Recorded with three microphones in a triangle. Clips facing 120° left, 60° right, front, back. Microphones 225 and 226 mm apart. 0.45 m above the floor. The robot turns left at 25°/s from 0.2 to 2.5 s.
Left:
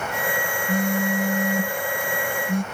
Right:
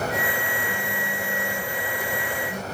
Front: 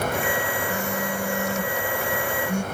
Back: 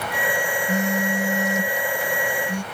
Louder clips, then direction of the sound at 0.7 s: Left 9 dB, back 4 dB; 125° left.